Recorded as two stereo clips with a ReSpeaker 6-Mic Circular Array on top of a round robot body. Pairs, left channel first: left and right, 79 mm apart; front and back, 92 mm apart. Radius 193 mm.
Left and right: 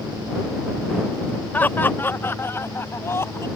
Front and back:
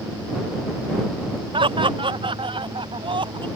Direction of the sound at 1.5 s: 160° left.